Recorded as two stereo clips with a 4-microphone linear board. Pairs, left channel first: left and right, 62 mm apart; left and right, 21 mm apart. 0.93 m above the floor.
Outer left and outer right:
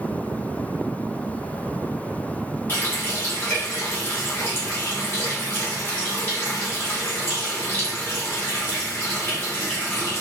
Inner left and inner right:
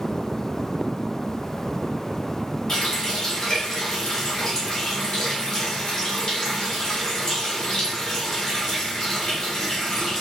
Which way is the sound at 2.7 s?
40° left (ahead or behind).